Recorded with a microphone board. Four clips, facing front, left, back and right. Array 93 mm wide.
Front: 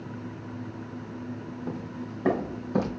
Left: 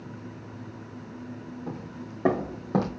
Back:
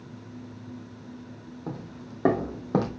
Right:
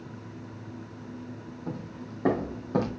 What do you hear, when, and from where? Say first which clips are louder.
1.7 s footsteps: right 3 dB, front 1 dB; 175° left, 2.5 m; by 2.9 s 150° left, 2.5 m